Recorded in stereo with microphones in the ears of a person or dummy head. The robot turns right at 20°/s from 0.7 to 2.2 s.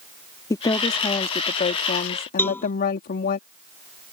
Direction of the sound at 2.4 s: 10° left (ahead or behind).